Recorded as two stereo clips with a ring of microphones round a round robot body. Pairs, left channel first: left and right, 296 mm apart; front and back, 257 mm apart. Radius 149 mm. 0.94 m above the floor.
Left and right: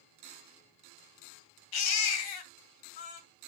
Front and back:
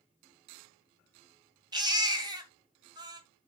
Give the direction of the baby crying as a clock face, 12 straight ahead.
8 o'clock.